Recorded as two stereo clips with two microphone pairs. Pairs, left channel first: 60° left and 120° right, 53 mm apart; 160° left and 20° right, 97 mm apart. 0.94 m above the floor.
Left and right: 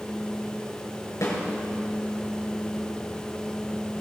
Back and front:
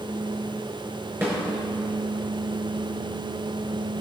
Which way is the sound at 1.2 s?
50° left.